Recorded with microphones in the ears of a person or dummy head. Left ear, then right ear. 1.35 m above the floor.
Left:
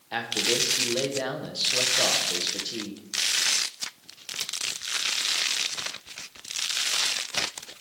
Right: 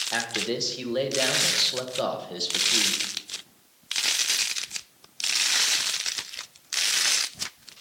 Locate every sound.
0.1 s a man speaking: 5° right (ahead or behind), 0.9 m